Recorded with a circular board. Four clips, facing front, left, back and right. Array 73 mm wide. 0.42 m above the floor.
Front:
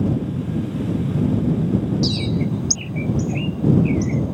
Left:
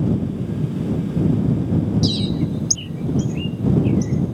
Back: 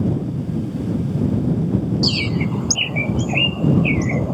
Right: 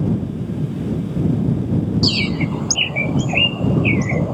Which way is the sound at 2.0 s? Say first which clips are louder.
Right 1 dB, even; 120° right.